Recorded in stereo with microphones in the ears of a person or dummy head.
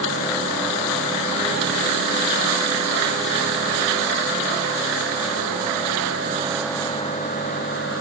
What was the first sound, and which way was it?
Only background noise.